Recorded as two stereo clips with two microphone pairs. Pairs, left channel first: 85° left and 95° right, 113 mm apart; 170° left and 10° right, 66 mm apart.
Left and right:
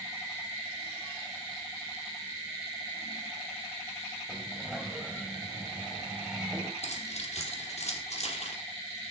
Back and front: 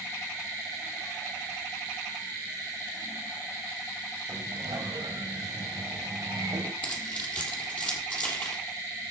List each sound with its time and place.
4.3 s a sliding door: 15° right, 3.5 m
6.8 s keys jangling: 105° left, 6 m